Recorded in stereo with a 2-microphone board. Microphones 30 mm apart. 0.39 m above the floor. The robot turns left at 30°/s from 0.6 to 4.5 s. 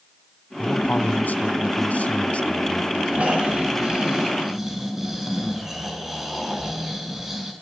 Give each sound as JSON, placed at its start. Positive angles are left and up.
{"t": 0.6, "sound": "a man speaking", "azimuth_deg": 105, "distance_m": 2.0}
{"t": 3.1, "sound": "snoring", "azimuth_deg": -125, "distance_m": 4.5}